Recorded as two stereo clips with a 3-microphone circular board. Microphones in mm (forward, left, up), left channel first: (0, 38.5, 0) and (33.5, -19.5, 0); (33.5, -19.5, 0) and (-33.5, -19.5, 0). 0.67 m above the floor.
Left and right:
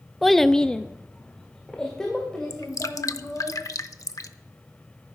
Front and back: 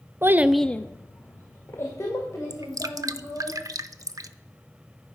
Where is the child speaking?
150° right, 0.6 m; by 3.5 s 40° left, 4 m.